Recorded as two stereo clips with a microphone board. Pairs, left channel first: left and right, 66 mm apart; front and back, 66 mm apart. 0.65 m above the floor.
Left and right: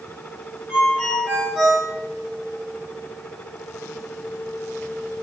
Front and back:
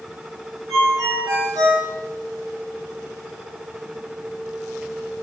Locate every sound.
0.7 s a ringtone: 170° right, 2.5 m